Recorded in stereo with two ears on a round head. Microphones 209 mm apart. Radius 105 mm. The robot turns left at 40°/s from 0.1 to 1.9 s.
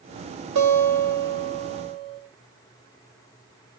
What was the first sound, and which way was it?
A guitar, 100° right.